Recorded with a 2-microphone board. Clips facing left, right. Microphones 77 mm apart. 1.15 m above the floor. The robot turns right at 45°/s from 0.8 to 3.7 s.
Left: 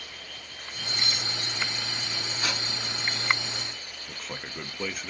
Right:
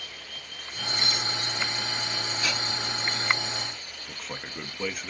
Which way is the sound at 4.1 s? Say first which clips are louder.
Even; centre (ahead or behind).